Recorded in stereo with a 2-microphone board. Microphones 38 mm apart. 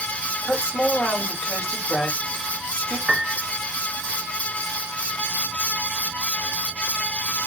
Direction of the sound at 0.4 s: 30° left (ahead or behind).